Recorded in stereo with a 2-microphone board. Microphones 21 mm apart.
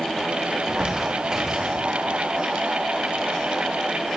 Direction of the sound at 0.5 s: 20° right (ahead or behind).